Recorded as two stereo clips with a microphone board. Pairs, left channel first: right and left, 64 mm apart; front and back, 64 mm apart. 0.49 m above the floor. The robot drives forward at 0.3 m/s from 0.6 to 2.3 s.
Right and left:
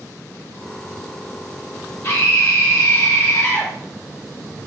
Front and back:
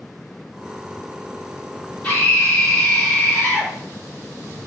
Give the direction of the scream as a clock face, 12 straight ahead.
2 o'clock.